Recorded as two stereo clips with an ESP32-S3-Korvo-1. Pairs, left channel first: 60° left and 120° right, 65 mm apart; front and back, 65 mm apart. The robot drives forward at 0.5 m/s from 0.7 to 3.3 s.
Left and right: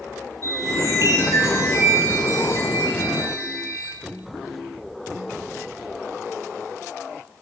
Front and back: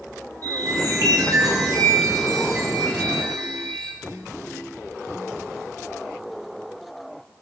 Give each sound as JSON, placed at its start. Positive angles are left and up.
{"t": 0.4, "sound": "a chime", "azimuth_deg": -155, "distance_m": 9.5}